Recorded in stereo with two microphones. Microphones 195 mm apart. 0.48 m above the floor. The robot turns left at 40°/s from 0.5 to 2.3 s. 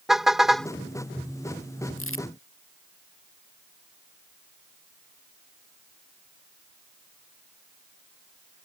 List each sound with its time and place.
0.1 s a car horn: centre (ahead or behind); by 0.7 s 5° left (ahead or behind)
2.0 s crumpling: 90° left; by 2.3 s 75° left (ahead or behind)